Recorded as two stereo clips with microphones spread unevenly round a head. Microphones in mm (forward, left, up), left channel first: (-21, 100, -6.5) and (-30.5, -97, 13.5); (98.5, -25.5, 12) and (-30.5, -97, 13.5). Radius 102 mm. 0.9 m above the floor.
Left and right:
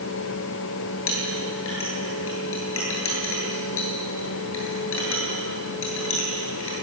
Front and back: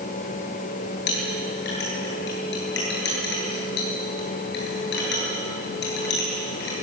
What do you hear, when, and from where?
1.1 s a clink: 55° left, 9.5 m